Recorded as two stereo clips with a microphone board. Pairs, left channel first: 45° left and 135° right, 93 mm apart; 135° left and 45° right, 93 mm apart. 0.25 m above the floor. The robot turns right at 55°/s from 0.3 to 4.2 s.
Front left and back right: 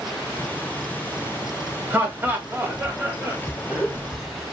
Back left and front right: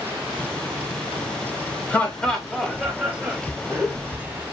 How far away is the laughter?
About 1.4 m.